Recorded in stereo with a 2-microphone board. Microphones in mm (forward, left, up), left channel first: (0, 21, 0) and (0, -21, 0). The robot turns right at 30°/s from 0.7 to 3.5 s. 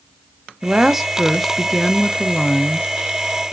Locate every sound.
0.6 s a woman speaking: 15° right, 1.0 m; by 2.9 s 50° left, 1.0 m